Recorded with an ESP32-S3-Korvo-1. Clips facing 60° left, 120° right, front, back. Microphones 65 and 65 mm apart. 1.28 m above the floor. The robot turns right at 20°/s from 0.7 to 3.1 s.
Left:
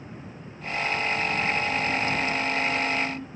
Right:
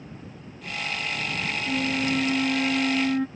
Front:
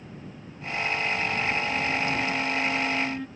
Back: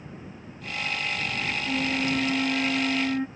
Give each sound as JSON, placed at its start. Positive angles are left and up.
{"t": 1.7, "sound": "a flute", "azimuth_deg": -145}